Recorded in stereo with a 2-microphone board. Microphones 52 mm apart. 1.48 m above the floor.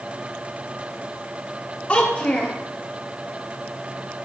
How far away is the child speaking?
About 2 m.